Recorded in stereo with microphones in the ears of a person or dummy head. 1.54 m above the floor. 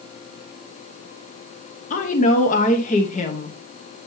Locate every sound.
1.9 s a woman speaking: 35° left (ahead or behind), 0.9 m